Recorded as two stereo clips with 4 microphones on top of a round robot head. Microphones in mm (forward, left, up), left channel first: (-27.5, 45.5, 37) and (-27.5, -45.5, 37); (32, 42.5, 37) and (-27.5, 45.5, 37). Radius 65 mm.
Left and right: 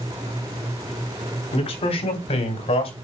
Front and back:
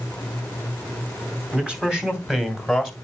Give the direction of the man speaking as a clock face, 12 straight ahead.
9 o'clock.